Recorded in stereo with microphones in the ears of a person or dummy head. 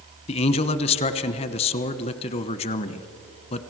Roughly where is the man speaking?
Left.